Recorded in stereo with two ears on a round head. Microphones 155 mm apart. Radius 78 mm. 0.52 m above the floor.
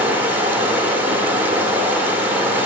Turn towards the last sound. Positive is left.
turn(degrees=-10)  # may be behind; listen again after turning